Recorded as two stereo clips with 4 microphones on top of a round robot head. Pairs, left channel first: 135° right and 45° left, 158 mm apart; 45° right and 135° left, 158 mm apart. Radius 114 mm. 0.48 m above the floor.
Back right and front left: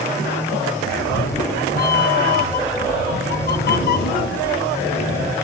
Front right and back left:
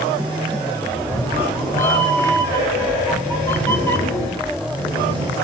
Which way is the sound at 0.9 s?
120° right.